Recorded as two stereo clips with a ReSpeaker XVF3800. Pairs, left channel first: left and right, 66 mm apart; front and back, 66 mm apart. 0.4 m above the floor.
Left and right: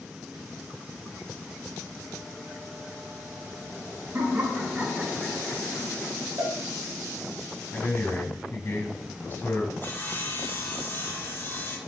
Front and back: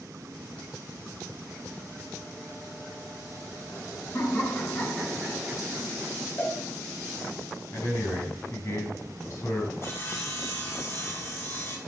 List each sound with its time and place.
4.1 s laughter: 25° right, 2 m; by 6.1 s 145° left, 1.9 m
6.4 s a cowbell: 55° right, 2 m
7.7 s a man speaking: 35° left, 3 m
9.8 s sawing: 40° left, 1.3 m